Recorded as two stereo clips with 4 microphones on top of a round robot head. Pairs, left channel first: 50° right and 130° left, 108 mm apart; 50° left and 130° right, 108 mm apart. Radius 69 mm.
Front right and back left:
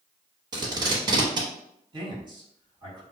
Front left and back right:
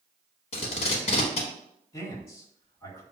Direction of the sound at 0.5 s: 80° left.